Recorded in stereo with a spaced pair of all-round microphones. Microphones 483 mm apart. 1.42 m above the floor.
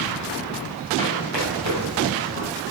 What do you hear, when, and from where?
1.0 s running footsteps: 65° left (ahead or behind), 3 m; by 2.5 s 70° left (ahead or behind), 3.5 m